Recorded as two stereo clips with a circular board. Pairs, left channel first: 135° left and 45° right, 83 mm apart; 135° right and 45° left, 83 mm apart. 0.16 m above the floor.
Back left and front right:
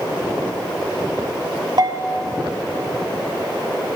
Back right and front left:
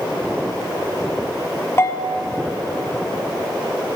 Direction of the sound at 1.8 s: 75° right.